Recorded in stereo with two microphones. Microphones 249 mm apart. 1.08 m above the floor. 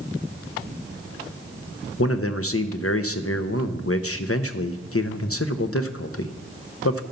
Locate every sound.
2.0 s a man speaking: 65° left (ahead or behind), 0.8 m